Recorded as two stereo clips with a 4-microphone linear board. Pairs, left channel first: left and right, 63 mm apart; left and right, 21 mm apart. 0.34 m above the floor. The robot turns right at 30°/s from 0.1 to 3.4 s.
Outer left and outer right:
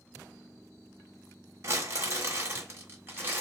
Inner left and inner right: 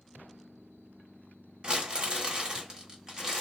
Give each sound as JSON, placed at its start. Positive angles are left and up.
{"t": 1.6, "sound": "crumpling", "azimuth_deg": -90, "distance_m": 0.9}